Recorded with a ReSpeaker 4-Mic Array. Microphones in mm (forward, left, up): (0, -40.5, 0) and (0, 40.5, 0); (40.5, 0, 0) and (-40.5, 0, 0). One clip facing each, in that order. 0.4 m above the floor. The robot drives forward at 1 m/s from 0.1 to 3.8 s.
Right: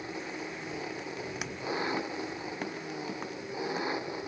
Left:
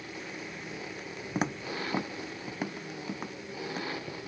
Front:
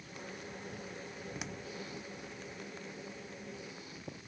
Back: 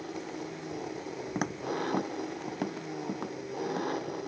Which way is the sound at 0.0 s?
160° right.